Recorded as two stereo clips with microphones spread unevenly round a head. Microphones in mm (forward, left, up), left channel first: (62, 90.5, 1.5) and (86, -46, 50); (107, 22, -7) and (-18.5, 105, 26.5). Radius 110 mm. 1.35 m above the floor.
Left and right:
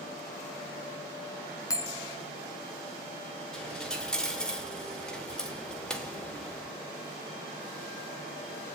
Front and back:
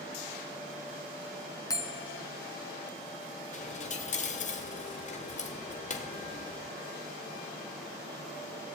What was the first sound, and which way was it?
A bell, 35° left.